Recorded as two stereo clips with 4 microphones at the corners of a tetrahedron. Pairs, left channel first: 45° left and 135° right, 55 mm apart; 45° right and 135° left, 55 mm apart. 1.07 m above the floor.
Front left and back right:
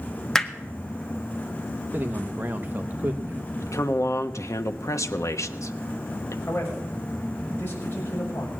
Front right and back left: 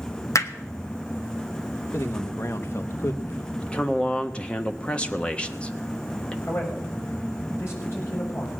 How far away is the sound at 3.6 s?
About 1.1 m.